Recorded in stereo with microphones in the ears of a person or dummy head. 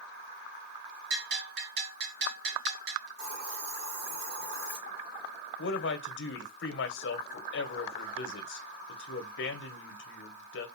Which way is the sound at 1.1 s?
70° right (ahead or behind).